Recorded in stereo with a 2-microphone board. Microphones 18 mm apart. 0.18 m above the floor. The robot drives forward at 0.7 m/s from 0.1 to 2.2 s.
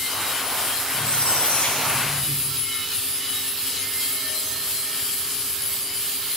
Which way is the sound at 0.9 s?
85° left.